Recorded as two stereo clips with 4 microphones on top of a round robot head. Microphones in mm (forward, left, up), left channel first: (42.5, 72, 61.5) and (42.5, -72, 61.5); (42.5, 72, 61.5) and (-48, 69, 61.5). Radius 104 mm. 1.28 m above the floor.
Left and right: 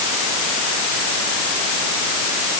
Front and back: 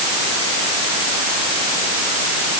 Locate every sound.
Only background noise.